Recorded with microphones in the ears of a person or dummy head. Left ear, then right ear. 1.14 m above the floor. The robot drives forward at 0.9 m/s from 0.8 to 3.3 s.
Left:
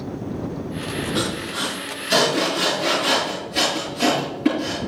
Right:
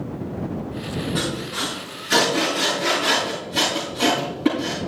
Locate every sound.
1.1 s sawing: 10° left (ahead or behind), 5.5 m